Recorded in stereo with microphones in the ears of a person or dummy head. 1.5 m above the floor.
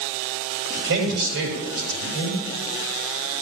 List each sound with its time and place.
0.8 s a man speaking: 75° right (ahead or behind), 5.5 m